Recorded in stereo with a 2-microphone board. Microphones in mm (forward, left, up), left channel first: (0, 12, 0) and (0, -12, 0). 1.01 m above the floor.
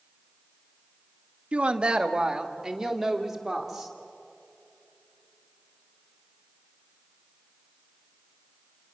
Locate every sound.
1.5 s a woman speaking: 50° right (ahead or behind), 1.6 m; by 4.0 s 5° right (ahead or behind), 3.5 m